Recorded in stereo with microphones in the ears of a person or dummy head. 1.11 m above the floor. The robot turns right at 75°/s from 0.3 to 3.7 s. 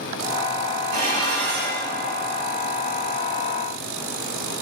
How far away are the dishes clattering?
About 2 m.